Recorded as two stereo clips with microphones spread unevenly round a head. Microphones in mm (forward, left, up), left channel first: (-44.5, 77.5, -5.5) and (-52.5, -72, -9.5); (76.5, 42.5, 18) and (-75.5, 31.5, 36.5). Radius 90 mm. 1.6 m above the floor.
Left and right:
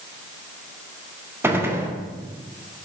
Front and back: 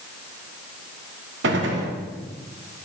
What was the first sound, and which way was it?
A gunshot, 170° right.